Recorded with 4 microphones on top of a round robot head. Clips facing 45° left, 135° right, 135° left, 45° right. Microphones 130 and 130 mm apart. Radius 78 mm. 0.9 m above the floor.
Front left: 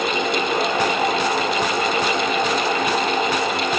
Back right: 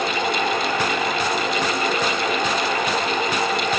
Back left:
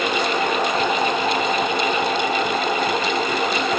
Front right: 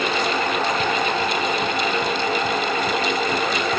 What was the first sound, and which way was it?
Only background noise.